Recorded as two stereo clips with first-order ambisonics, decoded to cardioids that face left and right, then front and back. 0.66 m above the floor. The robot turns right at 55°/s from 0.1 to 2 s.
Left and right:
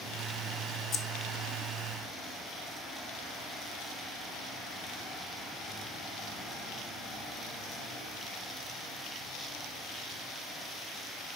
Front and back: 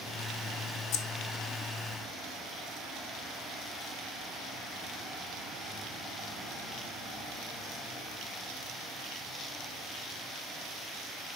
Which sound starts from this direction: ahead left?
Keys jangling, at 0.9 s.